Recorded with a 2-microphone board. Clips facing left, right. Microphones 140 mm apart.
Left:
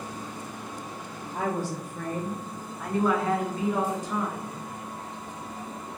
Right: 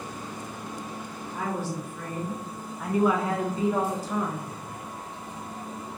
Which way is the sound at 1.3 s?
45° left (ahead or behind).